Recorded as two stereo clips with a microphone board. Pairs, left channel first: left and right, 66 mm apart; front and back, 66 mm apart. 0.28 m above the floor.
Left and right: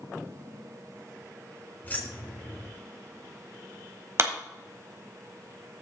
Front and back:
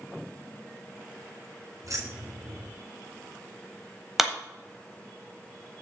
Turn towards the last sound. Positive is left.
turn(degrees=-95)